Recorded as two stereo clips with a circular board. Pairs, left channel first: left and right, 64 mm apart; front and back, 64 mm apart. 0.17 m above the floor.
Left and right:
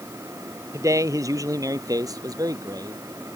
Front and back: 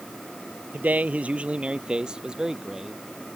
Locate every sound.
0.7 s a man speaking: 120° right; by 3.0 s 95° right